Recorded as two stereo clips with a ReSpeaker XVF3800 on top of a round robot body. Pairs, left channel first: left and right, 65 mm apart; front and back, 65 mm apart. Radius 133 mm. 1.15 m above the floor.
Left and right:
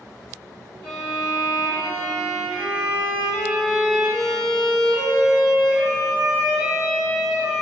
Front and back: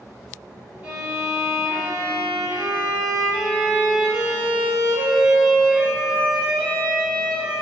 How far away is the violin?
About 1.1 m.